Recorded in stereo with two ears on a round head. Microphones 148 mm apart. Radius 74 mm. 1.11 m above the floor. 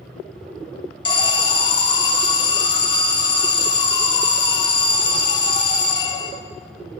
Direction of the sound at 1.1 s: 30° left (ahead or behind).